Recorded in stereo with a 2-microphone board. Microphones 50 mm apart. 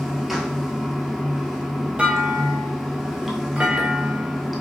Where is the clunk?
20° right (ahead or behind), 0.8 m.